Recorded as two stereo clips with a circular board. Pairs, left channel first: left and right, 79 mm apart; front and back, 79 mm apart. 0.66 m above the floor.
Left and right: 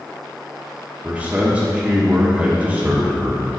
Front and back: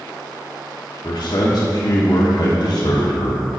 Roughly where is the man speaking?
Ahead.